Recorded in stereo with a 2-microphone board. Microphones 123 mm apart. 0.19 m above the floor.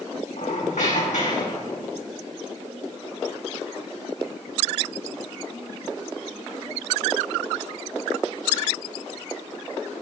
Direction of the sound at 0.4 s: 80° left.